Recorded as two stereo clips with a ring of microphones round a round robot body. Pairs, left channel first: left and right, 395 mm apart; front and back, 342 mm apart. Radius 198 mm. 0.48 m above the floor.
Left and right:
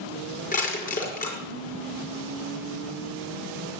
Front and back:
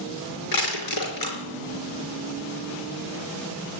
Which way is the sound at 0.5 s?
20° left.